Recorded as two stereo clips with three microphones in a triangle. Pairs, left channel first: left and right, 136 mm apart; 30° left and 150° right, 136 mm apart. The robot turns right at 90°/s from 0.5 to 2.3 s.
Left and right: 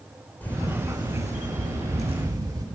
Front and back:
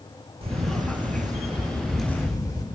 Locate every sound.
0.4 s a camera shutter: 165° left, 1.0 m; by 2.6 s 30° right, 1.0 m